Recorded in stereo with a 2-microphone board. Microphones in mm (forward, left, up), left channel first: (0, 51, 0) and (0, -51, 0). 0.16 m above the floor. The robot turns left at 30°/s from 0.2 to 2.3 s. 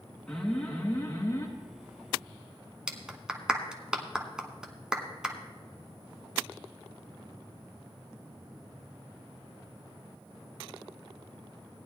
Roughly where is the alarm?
Behind.